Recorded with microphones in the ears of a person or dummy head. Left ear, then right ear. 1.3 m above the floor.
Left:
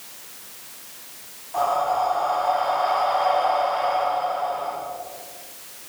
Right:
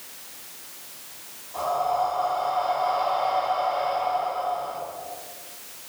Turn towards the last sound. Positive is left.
turn(degrees=65)  # may be behind; listen again after turning